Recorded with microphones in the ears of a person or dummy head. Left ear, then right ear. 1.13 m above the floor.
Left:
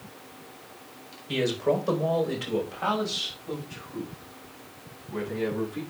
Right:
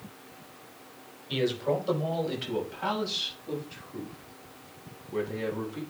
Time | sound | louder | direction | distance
1.3 | a man speaking | left 3 dB | 65° left (ahead or behind) | 4 m